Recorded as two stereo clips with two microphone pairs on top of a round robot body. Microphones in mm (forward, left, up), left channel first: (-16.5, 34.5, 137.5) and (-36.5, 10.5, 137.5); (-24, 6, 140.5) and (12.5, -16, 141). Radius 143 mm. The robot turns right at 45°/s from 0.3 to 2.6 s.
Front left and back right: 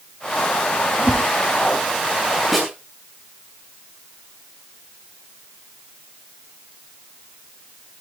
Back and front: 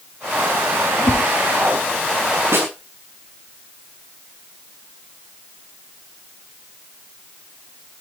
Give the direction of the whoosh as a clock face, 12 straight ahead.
7 o'clock.